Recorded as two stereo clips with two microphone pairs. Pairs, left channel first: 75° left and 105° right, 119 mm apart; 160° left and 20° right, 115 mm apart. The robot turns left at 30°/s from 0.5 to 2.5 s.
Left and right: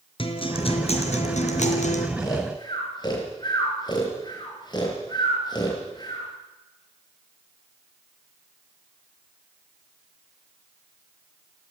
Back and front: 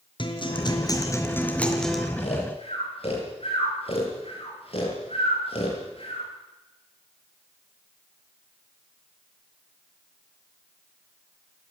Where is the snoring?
140° left, 7.5 m; by 6.2 s 130° left, 7.5 m.